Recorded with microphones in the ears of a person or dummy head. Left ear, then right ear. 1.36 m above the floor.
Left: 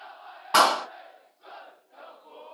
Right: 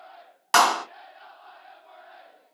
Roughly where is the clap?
Right.